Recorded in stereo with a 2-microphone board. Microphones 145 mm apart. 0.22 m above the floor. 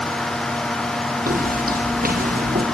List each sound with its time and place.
1.3 s footsteps: 80° right, 4.5 m; by 2.6 s 85° right, 3.5 m